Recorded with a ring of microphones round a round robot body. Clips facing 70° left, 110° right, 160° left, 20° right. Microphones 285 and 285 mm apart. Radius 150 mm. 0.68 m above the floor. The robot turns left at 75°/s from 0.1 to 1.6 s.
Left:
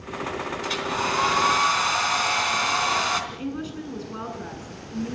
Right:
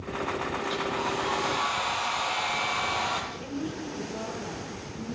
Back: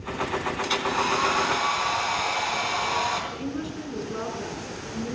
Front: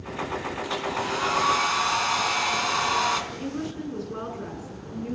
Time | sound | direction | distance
0.6 | a hair dryer | 115° left | 3.5 m
3.3 | a woman speaking | 60° left | 8 m